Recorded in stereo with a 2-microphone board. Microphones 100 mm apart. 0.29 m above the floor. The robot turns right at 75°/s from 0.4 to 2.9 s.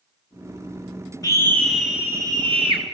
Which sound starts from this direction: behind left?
A scream, at 1.2 s.